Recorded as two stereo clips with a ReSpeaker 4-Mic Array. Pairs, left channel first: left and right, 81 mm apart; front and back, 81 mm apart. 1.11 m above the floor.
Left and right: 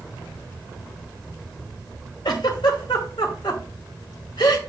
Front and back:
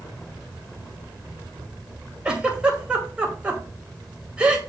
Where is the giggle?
105° left, 2.5 m.